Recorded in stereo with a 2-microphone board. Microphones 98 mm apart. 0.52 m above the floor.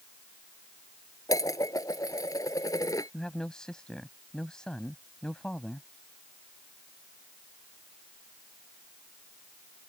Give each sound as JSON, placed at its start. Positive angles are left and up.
{"t": 1.3, "sound": "dishes clattering", "side_deg": 35}
{"t": 3.1, "sound": "a man speaking", "side_deg": 10}